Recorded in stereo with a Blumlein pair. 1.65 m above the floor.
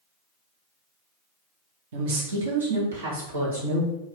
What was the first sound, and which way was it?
A woman speaking, 55° right.